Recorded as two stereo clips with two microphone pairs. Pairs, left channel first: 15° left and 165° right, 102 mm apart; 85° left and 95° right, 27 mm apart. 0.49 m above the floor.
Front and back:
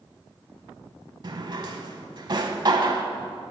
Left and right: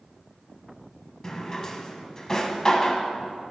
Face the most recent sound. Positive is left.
turn(degrees=155)